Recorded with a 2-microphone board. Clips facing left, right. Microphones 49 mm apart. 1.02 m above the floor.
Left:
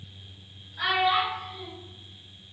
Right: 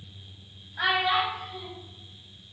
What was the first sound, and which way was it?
A child speaking, 35° right (ahead or behind).